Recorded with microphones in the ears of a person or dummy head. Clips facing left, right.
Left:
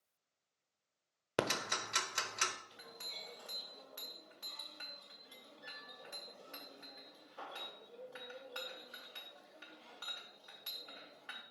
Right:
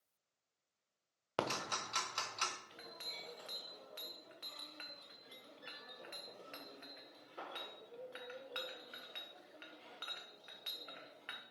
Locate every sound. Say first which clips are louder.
1.4 s ticking: left 3 dB; 25° left (ahead or behind), 0.7 m
2.7 s a clink: right 1 dB; 35° right (ahead or behind), 0.9 m